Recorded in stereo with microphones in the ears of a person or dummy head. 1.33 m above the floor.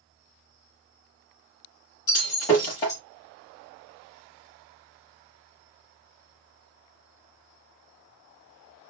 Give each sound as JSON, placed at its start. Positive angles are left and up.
{"t": 2.1, "sound": "breaking glass", "side_deg": 20, "distance_m": 1.2}